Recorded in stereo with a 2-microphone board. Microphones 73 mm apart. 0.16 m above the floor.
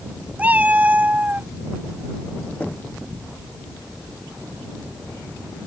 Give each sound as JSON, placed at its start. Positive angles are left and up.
{"t": 0.4, "sound": "a cat meowing", "side_deg": -20}
{"t": 2.6, "sound": "knocking", "side_deg": 20}